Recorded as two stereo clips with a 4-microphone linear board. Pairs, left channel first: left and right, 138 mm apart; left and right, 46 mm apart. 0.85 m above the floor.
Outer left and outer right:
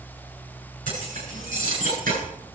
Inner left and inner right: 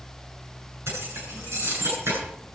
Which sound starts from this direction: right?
Keys jangling, at 0.9 s.